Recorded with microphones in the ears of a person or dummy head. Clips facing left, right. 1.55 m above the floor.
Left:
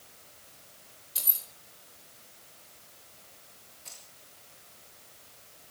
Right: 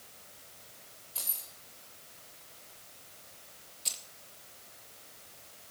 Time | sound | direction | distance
1.1 | keys jangling | 25° left (ahead or behind) | 4.5 m
3.9 | keys jangling | 40° right (ahead or behind) | 1.8 m